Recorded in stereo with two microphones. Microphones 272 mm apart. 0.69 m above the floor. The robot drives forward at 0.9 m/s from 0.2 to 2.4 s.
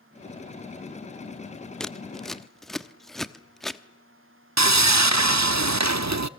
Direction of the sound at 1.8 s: 5° left (ahead or behind).